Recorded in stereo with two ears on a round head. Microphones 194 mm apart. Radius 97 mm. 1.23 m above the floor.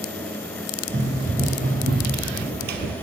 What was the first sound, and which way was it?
Running footsteps, 35° right (ahead or behind).